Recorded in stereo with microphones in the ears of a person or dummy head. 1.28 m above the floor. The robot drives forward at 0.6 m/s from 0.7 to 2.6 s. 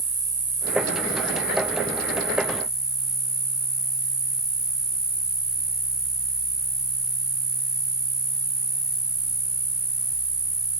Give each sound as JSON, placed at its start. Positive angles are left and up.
{"t": 0.0, "sound": "an insect", "side_deg": -5, "distance_m": 1.1}